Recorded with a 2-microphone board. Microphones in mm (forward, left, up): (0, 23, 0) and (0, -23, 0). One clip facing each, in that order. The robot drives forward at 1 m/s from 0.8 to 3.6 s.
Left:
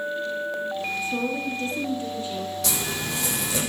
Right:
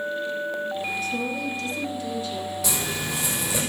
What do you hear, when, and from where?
1.0 s a woman speaking: 25° left (ahead or behind), 2 m; by 2.5 s 35° left (ahead or behind), 1.7 m
2.6 s a zipper: 5° right (ahead or behind), 6 m